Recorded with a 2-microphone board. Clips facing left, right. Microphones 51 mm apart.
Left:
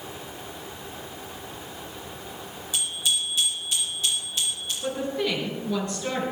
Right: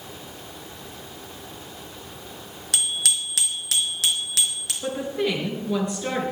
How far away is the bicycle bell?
About 3.5 m.